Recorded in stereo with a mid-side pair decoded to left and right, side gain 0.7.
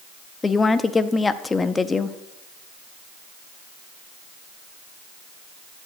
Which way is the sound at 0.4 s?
20° left.